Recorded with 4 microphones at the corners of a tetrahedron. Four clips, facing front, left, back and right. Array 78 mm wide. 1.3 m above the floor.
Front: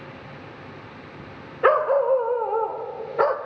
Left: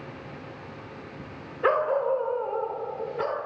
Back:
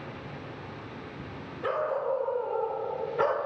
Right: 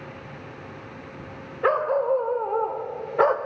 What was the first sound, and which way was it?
A dog barking, 5° right.